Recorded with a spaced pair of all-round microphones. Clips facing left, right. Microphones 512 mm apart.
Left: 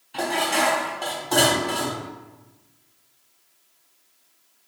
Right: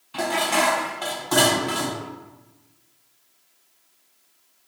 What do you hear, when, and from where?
0.1 s dishes clattering: 30° right (ahead or behind), 0.5 m